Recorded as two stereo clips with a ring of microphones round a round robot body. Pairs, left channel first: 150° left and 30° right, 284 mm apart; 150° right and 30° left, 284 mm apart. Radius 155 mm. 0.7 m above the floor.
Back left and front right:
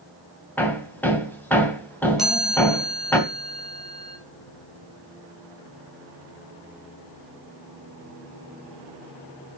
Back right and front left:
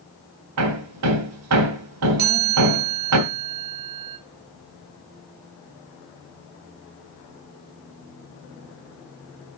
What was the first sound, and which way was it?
Hammering, 65° left.